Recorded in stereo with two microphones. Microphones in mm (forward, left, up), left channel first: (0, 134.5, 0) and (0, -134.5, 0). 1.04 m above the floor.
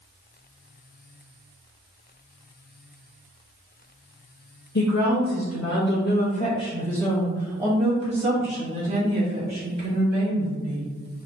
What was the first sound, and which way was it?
A woman speaking, 70° left (ahead or behind).